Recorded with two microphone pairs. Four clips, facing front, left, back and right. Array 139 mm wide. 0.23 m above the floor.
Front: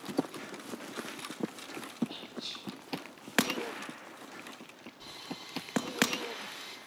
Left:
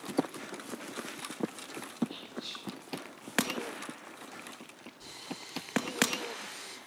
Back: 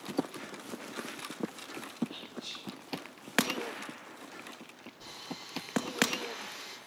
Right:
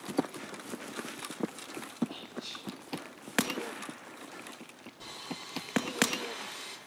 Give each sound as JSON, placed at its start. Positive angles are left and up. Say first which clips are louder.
{"t": 2.1, "sound": "whispering", "louder": "even, front 1 dB", "azimuth_deg": -35, "distance_m": 8.0}
{"t": 5.0, "sound": "sawing", "louder": "right 2 dB, even", "azimuth_deg": -80, "distance_m": 6.5}